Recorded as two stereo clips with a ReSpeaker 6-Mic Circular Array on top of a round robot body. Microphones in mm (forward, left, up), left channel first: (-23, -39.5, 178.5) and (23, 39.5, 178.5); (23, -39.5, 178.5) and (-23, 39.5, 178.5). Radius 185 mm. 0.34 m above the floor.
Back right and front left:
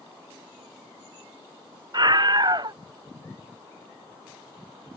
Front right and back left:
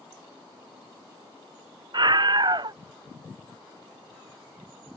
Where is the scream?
90° left.